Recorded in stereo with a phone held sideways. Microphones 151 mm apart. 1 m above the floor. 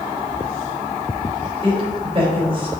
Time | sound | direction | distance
1.6 | a woman speaking | 40° right (ahead or behind) | 4 m